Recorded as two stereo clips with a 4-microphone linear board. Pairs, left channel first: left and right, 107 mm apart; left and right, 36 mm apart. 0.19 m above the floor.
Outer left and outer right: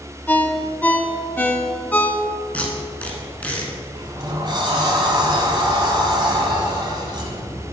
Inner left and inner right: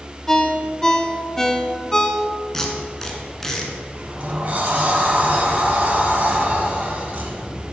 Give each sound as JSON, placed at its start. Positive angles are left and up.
{"t": 0.3, "sound": "a ringtone", "side_deg": 15, "distance_m": 0.5}
{"t": 2.5, "sound": "tape being pulled", "side_deg": 10, "distance_m": 1.2}
{"t": 4.0, "sound": "a sliding door", "side_deg": -45, "distance_m": 1.4}